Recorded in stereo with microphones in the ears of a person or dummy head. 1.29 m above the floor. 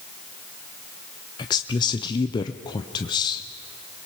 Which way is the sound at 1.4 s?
25° left (ahead or behind).